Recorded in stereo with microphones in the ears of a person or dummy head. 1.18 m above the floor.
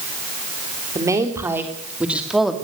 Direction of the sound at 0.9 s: 20° right (ahead or behind).